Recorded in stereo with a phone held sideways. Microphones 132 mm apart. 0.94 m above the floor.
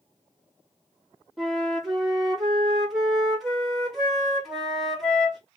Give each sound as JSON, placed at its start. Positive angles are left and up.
{"t": 1.4, "sound": "a flute", "side_deg": 0, "distance_m": 1.1}